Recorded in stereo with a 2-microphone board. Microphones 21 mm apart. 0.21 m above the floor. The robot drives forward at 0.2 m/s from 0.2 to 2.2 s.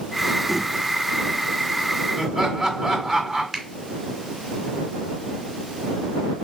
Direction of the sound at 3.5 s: 15° right (ahead or behind).